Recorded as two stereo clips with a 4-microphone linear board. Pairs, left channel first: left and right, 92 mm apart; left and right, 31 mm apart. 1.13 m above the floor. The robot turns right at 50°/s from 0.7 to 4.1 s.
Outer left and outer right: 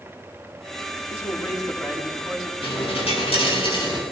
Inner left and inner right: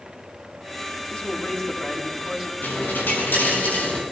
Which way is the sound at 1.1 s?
120° left.